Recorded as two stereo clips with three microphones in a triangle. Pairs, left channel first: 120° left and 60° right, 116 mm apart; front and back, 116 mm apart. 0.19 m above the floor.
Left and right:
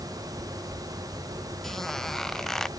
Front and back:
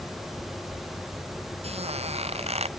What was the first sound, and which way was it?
A squeak, 155° right.